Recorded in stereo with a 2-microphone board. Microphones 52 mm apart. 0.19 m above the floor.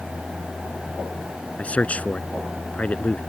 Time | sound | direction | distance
1.6 | a man speaking | 25° left (ahead or behind) | ?